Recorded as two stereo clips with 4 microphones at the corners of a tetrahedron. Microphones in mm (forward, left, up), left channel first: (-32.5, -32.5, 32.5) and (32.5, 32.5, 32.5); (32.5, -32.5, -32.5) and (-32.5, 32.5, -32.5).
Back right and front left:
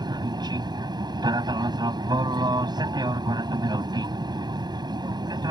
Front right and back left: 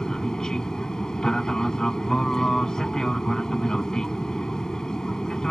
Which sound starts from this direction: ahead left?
An aircraft, at 0.0 s.